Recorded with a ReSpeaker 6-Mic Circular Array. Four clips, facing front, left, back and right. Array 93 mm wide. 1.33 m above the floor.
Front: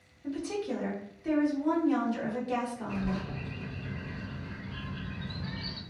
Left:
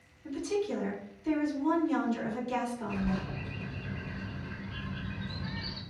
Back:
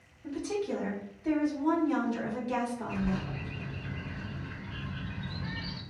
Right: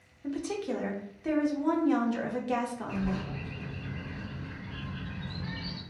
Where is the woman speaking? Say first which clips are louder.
Left 1 dB, back 1 dB; 90° right, 0.7 m.